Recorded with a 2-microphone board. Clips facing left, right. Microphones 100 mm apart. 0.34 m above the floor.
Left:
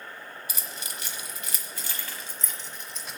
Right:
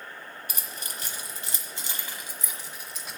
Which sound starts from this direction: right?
Keys jangling, at 0.5 s.